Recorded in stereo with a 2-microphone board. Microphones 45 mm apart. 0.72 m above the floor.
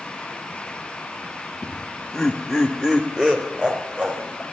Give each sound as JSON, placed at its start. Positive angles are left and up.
{"t": 1.6, "sound": "laughter", "side_deg": 25, "distance_m": 1.5}